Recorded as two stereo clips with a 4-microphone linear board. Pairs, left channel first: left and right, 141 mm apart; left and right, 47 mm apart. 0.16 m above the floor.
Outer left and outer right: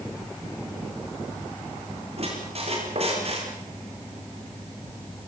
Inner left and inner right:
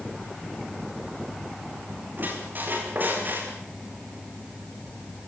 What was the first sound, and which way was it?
A squeak, 50° right (ahead or behind).